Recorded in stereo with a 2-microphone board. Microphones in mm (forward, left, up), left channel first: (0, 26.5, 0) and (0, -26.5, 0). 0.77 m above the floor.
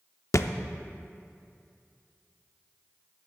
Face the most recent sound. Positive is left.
turn(degrees=65)  # may be behind; listen again after turning